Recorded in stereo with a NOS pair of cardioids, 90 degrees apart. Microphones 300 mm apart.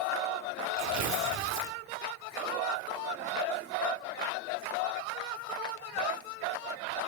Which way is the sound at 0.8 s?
65° right.